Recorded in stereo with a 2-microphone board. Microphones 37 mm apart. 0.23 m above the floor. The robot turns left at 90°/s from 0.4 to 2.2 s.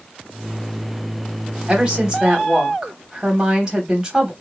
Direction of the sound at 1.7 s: 20° right (ahead or behind).